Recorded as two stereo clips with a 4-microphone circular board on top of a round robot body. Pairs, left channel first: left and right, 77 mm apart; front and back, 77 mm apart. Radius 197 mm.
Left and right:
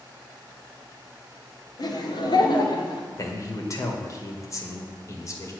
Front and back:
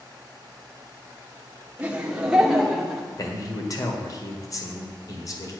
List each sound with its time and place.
1.8 s laughter: 105° left, 2 m; by 3.1 s 85° left, 2.5 m
3.2 s a man speaking: 40° left, 2 m